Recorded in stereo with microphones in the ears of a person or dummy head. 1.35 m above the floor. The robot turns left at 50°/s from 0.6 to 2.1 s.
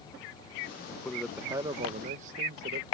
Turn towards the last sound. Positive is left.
turn(degrees=-45)